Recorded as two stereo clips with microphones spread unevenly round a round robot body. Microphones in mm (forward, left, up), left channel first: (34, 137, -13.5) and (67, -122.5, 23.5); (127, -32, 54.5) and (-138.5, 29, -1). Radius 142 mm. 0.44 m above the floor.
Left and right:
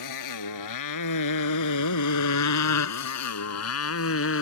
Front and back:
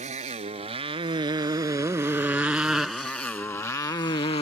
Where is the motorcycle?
100° left; by 4.4 s 60° left.